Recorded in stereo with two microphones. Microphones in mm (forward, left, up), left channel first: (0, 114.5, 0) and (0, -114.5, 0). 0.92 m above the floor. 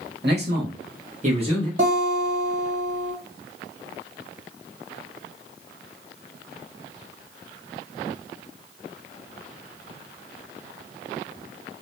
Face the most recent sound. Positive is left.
turn(degrees=-60)  # may be behind; listen again after turning